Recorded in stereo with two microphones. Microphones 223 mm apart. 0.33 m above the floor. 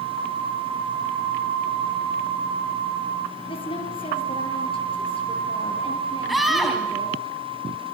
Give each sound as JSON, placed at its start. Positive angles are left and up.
{"t": 3.5, "sound": "a woman speaking", "side_deg": 25, "distance_m": 7.0}
{"t": 6.3, "sound": "a scream", "side_deg": 0, "distance_m": 2.5}